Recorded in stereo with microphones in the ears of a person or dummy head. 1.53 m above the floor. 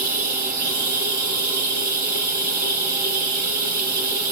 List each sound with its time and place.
0.0 s running water: 45° right (ahead or behind), 5 m